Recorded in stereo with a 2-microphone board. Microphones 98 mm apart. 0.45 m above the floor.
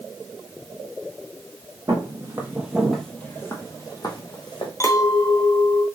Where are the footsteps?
35° right (ahead or behind), 1.1 m; by 4.7 s 55° left (ahead or behind), 1.4 m.